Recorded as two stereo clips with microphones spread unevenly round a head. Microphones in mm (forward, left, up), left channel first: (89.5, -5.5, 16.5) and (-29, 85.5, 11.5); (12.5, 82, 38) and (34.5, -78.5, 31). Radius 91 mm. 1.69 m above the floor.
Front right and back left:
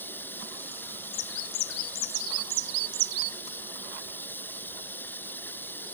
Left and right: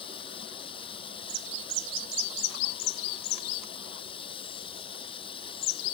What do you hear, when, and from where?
0.0 s running water: 40° left